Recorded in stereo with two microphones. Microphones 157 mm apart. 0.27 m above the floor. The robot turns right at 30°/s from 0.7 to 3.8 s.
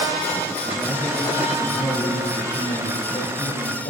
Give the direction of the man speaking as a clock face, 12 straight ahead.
1 o'clock.